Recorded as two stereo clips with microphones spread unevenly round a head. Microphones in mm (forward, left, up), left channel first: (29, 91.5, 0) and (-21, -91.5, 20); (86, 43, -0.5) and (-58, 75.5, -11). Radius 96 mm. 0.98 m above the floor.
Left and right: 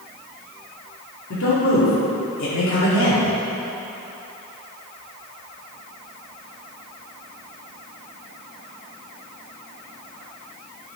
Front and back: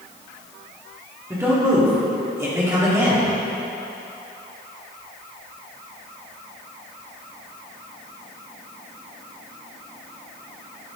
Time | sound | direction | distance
1.3 | a man speaking | 95° left | 2 m